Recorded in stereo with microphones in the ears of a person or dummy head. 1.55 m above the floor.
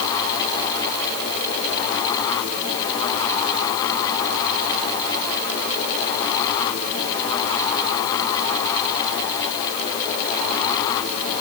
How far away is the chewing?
I don't hear chewing.